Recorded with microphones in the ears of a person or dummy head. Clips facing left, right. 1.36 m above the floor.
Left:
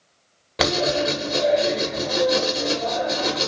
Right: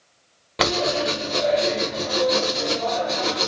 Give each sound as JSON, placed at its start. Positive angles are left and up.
{"t": 0.6, "sound": "writing", "side_deg": 5, "distance_m": 1.1}